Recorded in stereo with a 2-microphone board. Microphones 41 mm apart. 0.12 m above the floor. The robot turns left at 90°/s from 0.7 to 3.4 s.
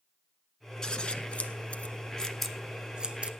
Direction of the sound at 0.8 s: 15° left (ahead or behind).